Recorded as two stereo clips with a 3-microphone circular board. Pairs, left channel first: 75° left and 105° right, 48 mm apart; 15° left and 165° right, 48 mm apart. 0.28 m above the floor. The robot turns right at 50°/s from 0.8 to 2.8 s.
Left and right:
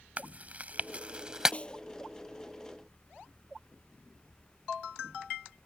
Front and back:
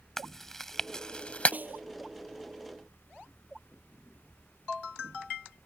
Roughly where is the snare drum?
Behind left.